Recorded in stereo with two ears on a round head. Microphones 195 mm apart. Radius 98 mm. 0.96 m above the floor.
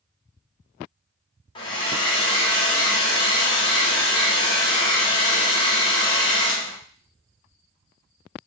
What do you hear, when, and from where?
1.6 s a hair dryer: 20° left (ahead or behind), 0.6 m